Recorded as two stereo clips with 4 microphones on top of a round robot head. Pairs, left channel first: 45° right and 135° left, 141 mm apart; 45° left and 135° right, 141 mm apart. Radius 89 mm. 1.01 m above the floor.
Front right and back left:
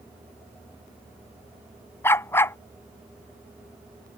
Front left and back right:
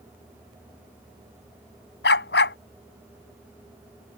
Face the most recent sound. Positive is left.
turn(degrees=30)